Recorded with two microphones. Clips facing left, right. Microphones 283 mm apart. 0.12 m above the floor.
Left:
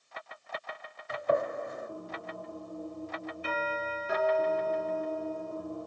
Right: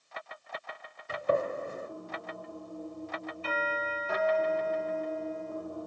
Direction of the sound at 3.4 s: 15° left (ahead or behind).